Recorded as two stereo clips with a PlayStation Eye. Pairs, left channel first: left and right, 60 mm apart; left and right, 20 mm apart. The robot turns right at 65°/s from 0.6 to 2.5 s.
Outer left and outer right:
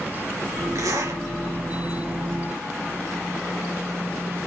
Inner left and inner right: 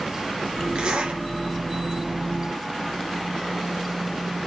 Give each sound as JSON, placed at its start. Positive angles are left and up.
{"t": 0.8, "sound": "a zipper", "side_deg": -65, "distance_m": 4.0}